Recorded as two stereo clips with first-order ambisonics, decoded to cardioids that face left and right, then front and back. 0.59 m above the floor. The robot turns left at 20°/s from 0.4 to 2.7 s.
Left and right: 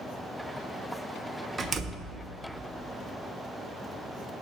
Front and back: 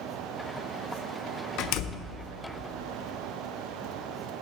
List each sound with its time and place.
1.6 s a door slam: 10° right, 0.7 m; by 2.1 s 20° right, 0.7 m